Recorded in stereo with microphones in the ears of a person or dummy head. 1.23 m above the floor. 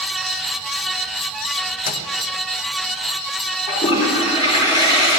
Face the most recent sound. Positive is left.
turn(degrees=30)  # may be behind; listen again after turning